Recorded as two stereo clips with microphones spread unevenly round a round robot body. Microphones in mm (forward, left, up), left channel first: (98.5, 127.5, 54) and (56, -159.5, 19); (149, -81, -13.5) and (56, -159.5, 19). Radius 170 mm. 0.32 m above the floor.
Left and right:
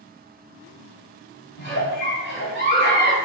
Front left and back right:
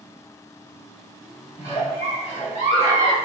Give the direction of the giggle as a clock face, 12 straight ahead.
11 o'clock.